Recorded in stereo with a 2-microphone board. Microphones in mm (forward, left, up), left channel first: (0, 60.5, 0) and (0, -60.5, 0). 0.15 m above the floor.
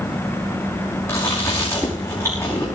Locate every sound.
1.1 s chewing: 25° left (ahead or behind), 5.5 m